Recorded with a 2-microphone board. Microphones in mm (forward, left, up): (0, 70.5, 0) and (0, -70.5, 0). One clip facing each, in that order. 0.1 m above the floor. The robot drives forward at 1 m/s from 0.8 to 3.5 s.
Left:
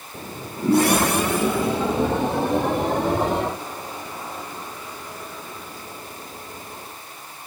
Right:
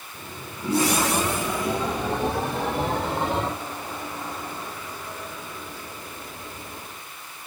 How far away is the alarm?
I don't hear an alarm.